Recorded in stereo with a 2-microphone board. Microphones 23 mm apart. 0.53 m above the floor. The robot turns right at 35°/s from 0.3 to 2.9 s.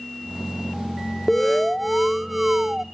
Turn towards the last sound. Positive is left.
turn(degrees=-150)